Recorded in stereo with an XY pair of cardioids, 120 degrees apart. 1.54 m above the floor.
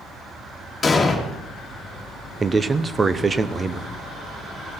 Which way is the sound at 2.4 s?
25° right.